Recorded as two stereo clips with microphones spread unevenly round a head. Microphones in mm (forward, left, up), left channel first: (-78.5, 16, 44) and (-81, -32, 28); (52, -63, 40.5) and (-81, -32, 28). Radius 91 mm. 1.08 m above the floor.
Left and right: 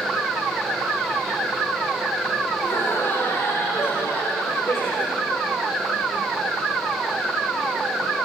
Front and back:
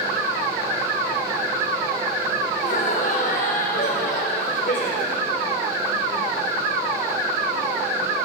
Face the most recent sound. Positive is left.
turn(degrees=30)